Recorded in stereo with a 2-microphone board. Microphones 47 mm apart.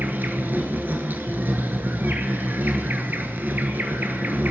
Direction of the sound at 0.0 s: 40° right (ahead or behind).